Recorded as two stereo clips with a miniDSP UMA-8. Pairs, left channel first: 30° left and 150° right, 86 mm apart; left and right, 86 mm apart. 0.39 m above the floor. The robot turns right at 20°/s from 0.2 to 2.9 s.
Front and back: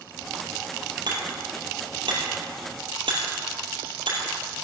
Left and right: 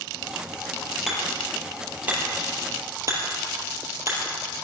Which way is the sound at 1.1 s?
Straight behind.